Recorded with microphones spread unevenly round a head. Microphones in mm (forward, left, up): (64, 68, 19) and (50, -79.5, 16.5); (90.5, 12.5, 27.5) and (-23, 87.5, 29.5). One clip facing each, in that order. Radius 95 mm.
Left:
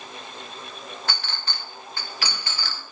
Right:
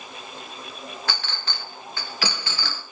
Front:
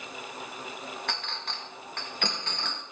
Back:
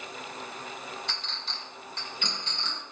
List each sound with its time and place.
1.1 s a clink: 90° right, 1.1 m